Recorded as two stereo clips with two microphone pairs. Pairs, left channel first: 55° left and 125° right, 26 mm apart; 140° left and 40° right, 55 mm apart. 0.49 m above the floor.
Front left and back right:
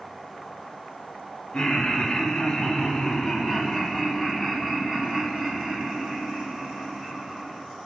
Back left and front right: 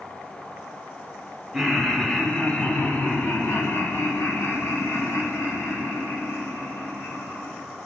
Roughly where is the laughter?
Ahead left.